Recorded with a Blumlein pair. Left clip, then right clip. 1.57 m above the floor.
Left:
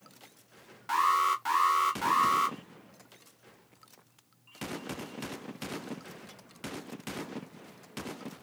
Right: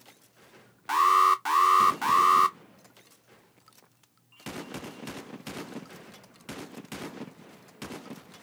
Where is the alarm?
15° right, 0.7 m.